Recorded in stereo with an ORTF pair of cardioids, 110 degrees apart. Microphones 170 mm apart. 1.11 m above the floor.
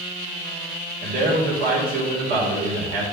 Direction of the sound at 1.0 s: 60° right.